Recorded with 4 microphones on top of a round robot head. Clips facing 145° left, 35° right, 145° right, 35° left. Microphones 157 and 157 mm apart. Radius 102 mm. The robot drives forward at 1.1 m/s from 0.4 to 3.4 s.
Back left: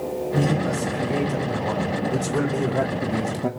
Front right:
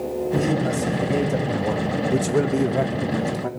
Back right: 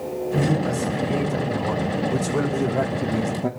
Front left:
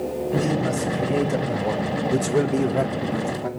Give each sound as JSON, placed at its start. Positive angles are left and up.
{"t": 0.3, "sound": "a man speaking", "azimuth_deg": 0, "distance_m": 3.0}